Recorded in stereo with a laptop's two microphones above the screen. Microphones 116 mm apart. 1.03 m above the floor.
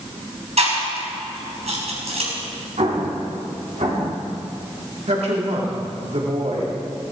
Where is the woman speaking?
70° right (ahead or behind), 2.5 m.